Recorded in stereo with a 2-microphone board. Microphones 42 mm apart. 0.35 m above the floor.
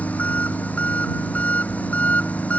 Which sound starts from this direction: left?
An engine running, at 0.0 s.